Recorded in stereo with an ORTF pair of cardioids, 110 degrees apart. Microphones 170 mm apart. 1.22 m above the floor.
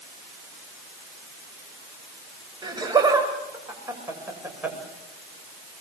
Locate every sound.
2.6 s laughter: 25° right, 7.5 m; by 4.8 s 10° right, 7 m